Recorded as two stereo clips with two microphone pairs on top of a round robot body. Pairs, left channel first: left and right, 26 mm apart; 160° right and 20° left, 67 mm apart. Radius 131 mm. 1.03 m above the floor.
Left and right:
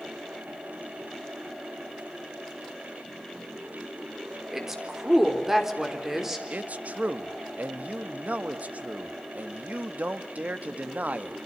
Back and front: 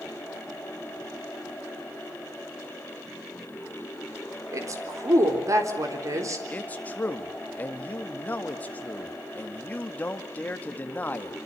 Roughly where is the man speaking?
Right.